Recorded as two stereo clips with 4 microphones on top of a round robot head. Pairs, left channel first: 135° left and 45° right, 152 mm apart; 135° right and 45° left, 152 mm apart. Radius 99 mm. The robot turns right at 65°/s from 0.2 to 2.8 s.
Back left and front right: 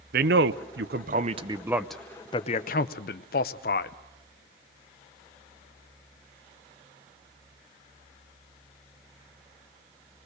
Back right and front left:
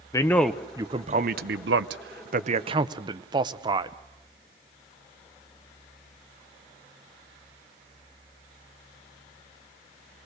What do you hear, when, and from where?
0.1 s a man speaking: 65° right, 0.6 m; by 4.0 s 105° left, 0.6 m